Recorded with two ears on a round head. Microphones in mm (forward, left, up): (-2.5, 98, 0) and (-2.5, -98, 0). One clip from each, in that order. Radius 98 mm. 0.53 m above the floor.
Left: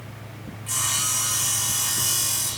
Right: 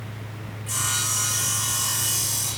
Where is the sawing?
5° left (ahead or behind), 3 m.